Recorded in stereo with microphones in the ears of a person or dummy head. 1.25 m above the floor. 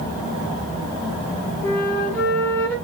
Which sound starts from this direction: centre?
A flute, at 1.6 s.